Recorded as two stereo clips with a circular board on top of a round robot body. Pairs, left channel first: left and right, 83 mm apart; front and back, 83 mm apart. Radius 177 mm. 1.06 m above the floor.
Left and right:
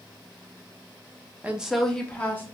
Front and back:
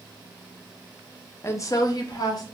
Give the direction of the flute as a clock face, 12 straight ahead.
No flute in this recording.